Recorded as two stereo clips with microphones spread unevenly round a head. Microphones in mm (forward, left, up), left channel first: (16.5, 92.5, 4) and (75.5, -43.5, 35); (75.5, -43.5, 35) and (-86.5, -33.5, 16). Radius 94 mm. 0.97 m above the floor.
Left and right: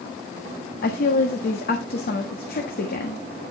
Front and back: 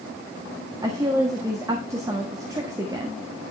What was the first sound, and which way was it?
A woman speaking, 105° left.